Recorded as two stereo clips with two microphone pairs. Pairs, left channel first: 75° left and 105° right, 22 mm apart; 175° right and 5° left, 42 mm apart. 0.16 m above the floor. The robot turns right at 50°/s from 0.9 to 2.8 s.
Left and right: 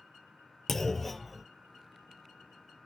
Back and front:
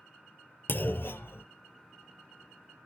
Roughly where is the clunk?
Behind left.